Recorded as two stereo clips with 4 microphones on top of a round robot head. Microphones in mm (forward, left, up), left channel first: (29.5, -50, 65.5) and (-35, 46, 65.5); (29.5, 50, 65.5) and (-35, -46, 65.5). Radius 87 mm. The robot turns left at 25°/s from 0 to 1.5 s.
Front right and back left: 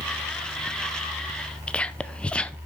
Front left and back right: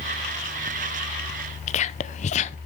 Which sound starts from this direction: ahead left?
Whispering, at 1.7 s.